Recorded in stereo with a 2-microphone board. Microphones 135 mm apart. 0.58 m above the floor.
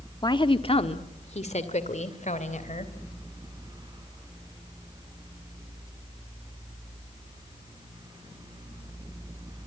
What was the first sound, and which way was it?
A woman speaking, 30° left (ahead or behind).